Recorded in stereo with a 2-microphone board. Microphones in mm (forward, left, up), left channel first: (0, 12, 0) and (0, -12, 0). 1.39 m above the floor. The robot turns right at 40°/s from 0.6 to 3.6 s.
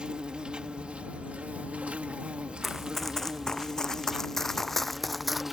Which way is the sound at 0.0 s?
135° right.